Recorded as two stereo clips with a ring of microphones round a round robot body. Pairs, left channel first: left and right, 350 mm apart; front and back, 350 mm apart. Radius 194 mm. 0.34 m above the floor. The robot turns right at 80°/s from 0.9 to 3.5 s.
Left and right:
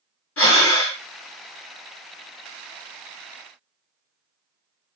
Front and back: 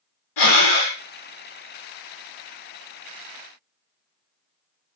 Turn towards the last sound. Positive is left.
turn(degrees=-115)